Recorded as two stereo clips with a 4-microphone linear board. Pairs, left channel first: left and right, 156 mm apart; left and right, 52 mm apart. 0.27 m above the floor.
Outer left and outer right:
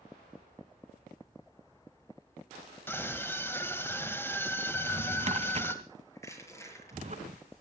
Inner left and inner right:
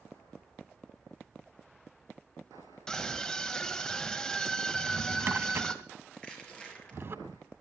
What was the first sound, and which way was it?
A scream, 15° left (ahead or behind).